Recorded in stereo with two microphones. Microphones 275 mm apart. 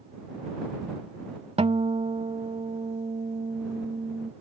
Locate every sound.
1.6 s a guitar: 20° right (ahead or behind)